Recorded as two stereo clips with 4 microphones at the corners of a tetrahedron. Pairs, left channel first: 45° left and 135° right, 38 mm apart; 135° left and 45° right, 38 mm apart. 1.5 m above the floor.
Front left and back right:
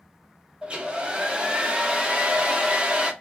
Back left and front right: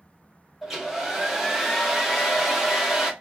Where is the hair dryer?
120° right, 0.8 m.